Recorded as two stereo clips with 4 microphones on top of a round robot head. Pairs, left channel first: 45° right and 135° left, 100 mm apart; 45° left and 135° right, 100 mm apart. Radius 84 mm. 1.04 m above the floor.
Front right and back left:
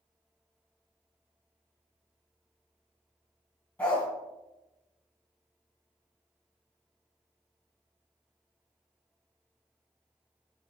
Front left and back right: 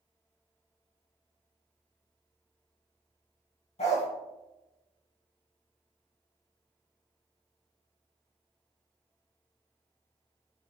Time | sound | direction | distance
3.8 | a dog barking | 30° left | 3 m